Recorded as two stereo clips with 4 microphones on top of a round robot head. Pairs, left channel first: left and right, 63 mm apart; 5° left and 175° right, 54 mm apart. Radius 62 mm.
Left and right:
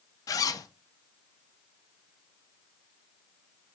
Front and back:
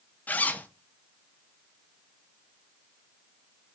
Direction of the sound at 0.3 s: 65° left.